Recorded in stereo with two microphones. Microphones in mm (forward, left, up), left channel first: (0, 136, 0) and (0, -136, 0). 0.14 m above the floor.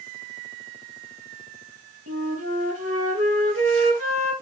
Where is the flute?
60° right (ahead or behind), 4 m.